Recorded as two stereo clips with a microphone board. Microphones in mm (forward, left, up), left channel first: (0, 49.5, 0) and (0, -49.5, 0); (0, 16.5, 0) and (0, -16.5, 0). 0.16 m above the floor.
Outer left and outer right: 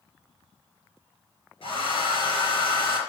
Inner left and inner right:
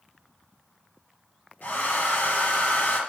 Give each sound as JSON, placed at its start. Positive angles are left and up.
{"t": 1.6, "sound": "a hair dryer", "side_deg": 60, "distance_m": 3.5}